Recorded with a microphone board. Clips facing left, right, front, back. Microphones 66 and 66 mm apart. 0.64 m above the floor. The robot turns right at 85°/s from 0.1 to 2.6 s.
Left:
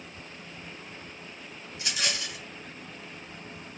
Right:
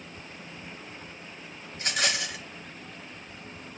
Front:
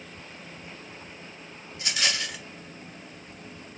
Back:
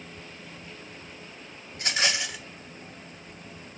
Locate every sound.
1.7 s a rattle: 145° right, 1.1 m; by 2.4 s 85° right, 1.1 m